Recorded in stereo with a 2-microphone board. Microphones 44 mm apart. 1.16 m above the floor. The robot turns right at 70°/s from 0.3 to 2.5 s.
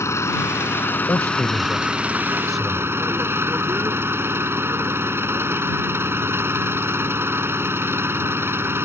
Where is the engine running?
90° left; by 8.9 s 120° right.